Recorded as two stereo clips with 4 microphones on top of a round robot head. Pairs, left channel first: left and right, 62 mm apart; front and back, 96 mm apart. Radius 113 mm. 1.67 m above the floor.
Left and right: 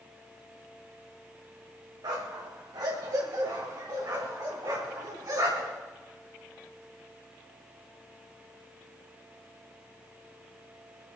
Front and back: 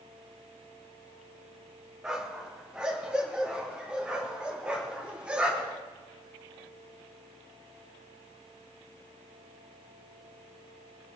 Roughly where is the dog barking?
Right.